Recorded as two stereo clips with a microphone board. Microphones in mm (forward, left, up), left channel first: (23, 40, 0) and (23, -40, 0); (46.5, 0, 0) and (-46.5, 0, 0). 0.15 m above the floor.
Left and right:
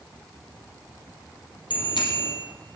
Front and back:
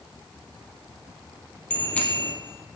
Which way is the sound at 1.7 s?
75° left.